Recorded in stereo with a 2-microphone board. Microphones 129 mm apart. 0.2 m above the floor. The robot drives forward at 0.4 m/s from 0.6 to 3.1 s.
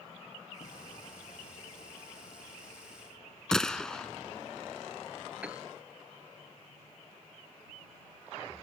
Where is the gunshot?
5° left (ahead or behind).